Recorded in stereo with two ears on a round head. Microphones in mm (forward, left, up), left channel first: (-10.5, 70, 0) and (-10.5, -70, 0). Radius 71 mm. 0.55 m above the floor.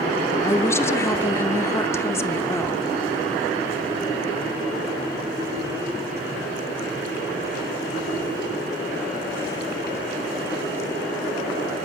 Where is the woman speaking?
15° left (ahead or behind), 0.9 m.